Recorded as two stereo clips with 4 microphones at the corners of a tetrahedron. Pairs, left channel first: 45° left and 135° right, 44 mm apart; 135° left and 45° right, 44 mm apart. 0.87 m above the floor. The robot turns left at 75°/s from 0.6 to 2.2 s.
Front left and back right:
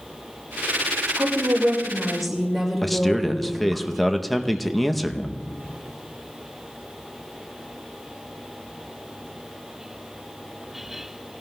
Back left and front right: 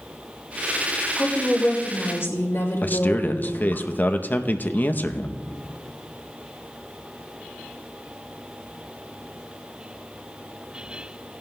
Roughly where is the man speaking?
Behind left.